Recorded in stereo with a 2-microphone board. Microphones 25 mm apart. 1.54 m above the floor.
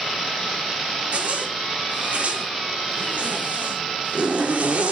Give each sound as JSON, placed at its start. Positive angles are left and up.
{"t": 1.1, "sound": "a zipper", "side_deg": -65, "distance_m": 2.0}